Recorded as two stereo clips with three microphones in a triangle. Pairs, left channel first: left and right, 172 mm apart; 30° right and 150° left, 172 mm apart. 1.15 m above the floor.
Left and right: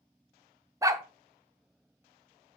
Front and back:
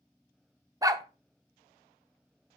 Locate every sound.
0.8 s a dog barking: 150° right, 0.8 m